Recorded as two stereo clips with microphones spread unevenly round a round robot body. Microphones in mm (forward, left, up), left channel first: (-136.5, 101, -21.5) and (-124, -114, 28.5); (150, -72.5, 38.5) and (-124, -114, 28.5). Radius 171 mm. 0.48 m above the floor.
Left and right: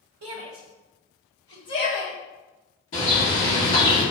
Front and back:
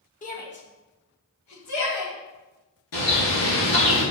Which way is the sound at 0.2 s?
50° right.